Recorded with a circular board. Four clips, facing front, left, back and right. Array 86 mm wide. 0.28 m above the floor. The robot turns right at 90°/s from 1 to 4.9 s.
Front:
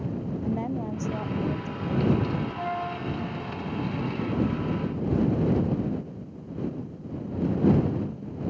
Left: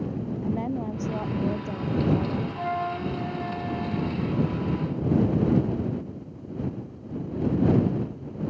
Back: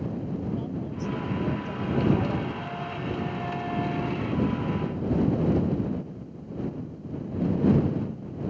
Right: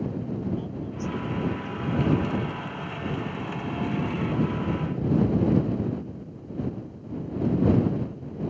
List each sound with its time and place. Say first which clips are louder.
0.4 s a woman speaking: left 3 dB, front 3 dB; 50° left; by 2.5 s straight behind
2.6 s a flute: left 6 dB, front 3 dB; 45° left; by 4.3 s 155° right